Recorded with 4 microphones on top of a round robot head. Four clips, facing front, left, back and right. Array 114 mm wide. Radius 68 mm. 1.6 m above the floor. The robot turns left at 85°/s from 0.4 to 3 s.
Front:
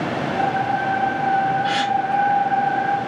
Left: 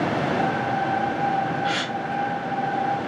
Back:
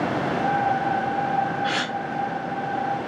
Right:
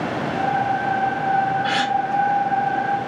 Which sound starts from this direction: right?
A gasp, at 1.6 s.